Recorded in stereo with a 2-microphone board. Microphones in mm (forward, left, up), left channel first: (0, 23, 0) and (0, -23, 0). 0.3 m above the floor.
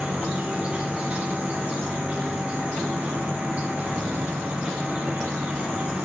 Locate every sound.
0.0 s an insect: 30° right (ahead or behind), 3.5 m